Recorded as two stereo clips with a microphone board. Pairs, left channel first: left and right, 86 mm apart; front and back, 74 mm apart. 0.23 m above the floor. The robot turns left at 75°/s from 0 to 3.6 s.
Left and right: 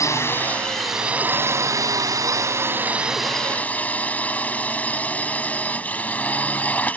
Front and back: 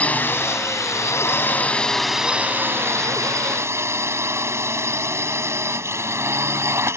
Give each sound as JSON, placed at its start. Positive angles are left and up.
{"t": 0.0, "sound": "a drone", "azimuth_deg": 65}